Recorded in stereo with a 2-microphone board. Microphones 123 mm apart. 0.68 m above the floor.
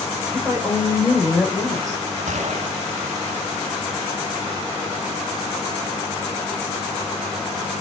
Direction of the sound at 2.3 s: 75° right (ahead or behind).